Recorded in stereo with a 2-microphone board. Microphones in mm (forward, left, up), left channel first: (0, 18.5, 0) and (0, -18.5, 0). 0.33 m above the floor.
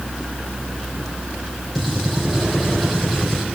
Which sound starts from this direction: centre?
A gunshot, at 1.8 s.